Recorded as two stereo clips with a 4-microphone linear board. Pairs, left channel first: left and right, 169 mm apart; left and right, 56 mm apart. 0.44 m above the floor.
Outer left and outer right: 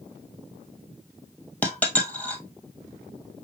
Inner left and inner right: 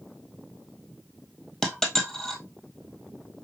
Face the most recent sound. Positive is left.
turn(degrees=10)  # may be behind; listen again after turning